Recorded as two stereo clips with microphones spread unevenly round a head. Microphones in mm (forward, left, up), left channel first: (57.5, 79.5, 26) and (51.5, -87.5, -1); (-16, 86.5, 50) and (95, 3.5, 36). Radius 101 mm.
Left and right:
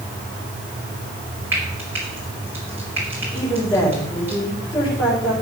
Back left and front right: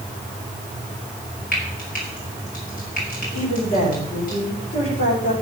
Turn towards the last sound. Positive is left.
turn(degrees=155)